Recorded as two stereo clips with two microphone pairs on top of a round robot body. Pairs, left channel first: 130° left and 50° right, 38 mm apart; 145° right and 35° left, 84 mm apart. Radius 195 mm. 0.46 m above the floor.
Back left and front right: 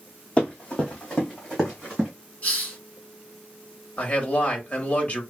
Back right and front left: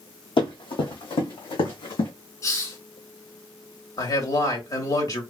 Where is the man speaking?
Straight behind, 1.8 m.